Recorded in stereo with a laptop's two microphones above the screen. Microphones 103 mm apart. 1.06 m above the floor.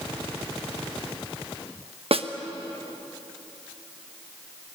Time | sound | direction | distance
2.1 | a snare drum | 65° right (ahead or behind) | 1.1 m